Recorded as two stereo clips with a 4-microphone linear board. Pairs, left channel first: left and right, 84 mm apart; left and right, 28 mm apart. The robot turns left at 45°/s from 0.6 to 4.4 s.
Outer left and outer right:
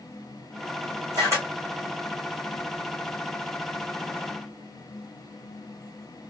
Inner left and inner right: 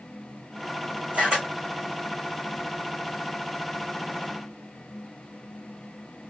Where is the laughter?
I don't hear laughter.